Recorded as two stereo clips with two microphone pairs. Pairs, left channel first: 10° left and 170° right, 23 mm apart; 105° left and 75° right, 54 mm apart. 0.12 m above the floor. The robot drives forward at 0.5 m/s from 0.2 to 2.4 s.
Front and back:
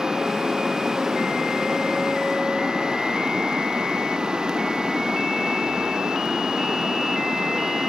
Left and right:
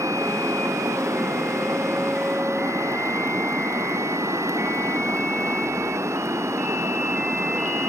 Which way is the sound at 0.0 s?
100° right.